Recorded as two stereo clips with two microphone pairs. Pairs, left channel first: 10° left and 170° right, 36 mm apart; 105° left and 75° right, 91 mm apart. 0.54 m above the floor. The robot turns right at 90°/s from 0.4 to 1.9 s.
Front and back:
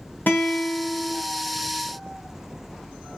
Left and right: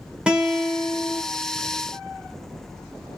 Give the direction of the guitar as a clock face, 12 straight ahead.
12 o'clock.